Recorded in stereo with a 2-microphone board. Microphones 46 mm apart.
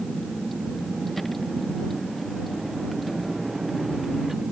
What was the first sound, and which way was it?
A vehicle, 5° left (ahead or behind).